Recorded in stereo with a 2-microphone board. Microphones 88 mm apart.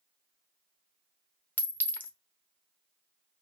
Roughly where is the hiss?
I don't hear a hiss.